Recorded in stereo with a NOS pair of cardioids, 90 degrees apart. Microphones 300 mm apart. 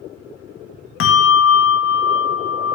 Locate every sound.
1.0 s a bell: 50° left, 0.8 m